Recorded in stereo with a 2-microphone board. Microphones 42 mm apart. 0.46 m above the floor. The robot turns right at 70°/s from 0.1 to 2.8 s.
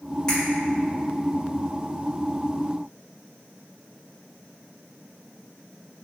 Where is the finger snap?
15° left (ahead or behind), 1.3 m; by 0.4 s 20° left (ahead or behind), 1.3 m.